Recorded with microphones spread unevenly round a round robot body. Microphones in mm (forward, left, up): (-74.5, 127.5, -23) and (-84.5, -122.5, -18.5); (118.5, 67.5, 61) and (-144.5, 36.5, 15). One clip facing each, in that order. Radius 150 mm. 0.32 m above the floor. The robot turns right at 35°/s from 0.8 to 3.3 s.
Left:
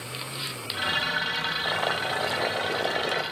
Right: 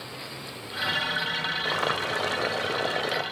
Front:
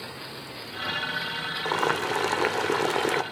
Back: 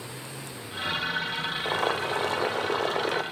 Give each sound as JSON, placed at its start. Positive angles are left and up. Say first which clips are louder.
{"t": 1.6, "sound": "boiling", "louder": "right 1 dB, front 2 dB", "azimuth_deg": -55, "distance_m": 0.8}